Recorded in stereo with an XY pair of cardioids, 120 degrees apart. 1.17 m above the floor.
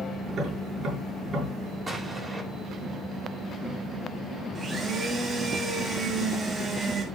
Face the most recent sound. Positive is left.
turn(degrees=-30)